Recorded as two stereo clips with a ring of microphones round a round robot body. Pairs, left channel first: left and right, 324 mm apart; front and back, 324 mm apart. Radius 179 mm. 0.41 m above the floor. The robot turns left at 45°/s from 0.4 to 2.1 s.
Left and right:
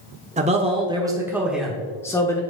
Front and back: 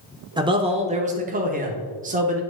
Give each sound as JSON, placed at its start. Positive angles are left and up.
{"t": 0.4, "sound": "a man speaking", "azimuth_deg": -125, "distance_m": 0.8}